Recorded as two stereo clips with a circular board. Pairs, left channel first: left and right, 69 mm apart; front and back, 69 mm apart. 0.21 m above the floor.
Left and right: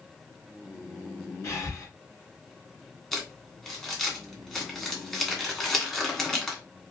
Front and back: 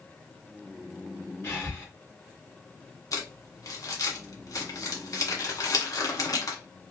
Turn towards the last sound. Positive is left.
turn(degrees=5)